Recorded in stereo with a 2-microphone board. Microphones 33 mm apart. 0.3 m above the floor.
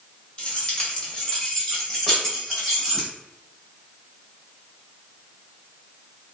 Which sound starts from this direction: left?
Keys jangling, at 0.4 s.